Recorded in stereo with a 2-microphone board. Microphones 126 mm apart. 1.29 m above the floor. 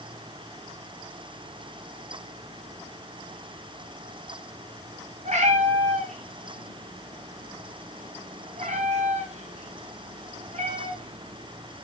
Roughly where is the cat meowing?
Right.